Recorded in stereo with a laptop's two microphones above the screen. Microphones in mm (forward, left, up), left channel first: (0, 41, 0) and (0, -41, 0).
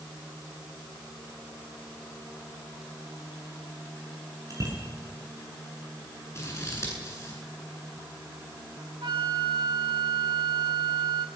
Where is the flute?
65° right (ahead or behind), 1.9 m.